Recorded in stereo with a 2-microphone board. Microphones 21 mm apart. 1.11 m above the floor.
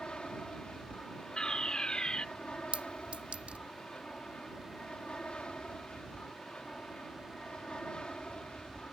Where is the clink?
65° right (ahead or behind).